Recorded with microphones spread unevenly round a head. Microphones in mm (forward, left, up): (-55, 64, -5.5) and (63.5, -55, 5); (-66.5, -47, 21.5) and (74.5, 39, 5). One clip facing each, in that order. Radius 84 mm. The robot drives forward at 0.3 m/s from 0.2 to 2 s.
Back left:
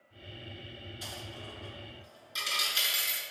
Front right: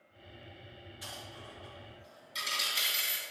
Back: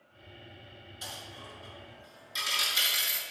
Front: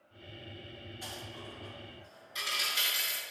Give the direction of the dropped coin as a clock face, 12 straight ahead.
6 o'clock.